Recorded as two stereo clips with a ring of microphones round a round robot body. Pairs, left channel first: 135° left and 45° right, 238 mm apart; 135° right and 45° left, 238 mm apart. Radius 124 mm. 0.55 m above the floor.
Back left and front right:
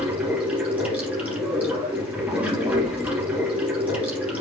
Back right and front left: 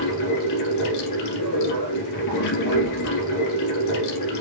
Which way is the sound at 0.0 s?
130° right.